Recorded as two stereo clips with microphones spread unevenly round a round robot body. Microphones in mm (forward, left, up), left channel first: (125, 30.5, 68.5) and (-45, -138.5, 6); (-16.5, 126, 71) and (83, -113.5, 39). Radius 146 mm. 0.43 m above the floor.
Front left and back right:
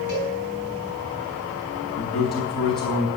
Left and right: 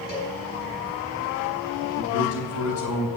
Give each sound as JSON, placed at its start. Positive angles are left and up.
{"t": 0.1, "sound": "a cowbell", "azimuth_deg": 170, "distance_m": 5.5}
{"t": 2.0, "sound": "a man speaking", "azimuth_deg": 140, "distance_m": 3.5}